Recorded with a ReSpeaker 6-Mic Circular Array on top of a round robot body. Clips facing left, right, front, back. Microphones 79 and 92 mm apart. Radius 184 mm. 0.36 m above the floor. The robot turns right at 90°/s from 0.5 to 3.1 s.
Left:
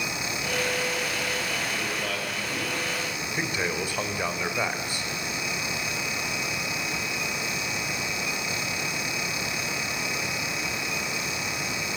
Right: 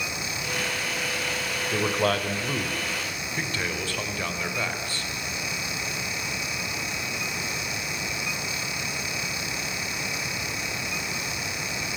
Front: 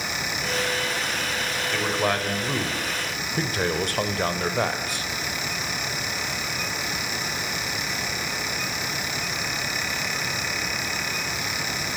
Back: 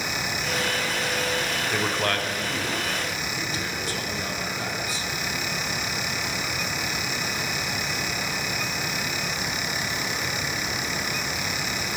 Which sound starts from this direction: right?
A man speaking, at 1.7 s.